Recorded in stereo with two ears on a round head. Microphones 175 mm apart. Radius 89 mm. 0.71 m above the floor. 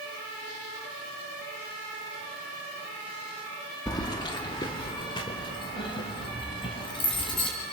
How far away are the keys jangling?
About 0.8 m.